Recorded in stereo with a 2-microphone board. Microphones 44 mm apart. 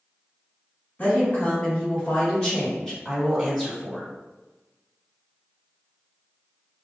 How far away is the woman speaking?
About 1.7 m.